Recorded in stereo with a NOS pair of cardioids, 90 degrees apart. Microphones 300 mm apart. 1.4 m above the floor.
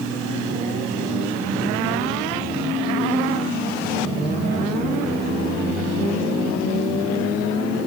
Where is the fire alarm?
No fire alarm in this recording.